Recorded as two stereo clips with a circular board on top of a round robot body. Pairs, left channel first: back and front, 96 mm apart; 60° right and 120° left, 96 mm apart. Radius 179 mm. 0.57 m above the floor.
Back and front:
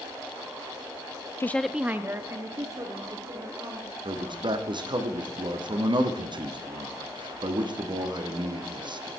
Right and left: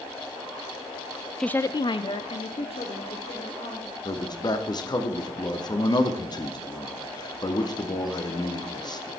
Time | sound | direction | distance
1.4 | a woman speaking | 145° right | 0.6 m
4.0 | a man speaking | 25° right | 1.6 m